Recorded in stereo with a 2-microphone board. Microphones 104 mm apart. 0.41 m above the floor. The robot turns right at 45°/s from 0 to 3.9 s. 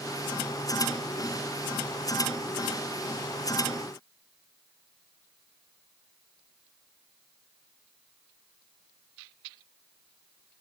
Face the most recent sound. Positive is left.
No sound to turn to.